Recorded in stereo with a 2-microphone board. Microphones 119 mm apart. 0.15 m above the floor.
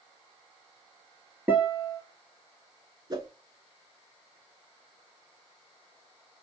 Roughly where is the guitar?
Centre.